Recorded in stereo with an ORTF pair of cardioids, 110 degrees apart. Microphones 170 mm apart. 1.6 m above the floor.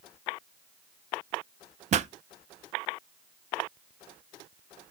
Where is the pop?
45° right, 0.5 m.